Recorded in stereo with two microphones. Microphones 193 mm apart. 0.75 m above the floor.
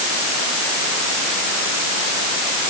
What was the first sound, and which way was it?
Only background noise.